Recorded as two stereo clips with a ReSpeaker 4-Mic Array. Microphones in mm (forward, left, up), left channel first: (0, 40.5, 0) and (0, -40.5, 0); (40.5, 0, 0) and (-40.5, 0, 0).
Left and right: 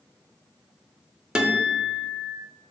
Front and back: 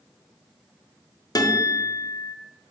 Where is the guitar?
15° right, 0.5 m.